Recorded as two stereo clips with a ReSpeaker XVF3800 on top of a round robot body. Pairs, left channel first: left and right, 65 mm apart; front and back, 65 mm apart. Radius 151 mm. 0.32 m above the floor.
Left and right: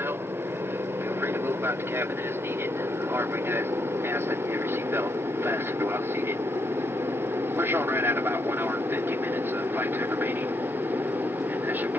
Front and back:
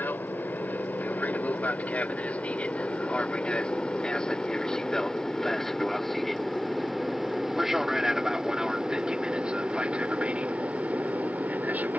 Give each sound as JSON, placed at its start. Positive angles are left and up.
{"t": 0.0, "sound": "an aircraft", "azimuth_deg": -50}